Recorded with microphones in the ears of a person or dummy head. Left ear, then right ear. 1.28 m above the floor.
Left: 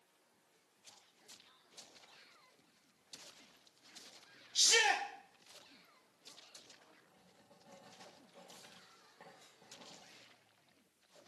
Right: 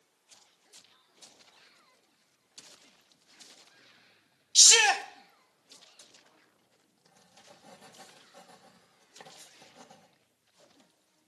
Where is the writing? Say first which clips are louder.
Right 8 dB; 70° right (ahead or behind), 1.1 m.